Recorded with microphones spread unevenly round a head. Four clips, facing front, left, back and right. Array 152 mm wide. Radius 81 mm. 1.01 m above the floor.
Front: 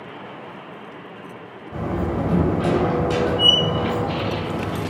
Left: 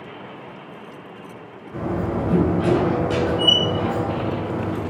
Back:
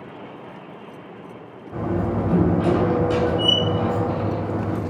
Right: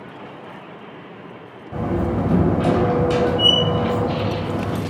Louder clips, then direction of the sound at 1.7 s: Right 2 dB, back 1 dB; 80° right.